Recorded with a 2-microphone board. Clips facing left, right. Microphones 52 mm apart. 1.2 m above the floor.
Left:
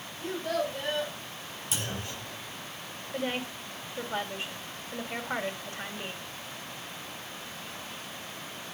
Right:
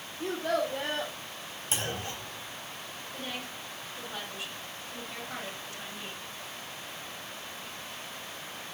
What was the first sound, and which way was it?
A child speaking, 85° right.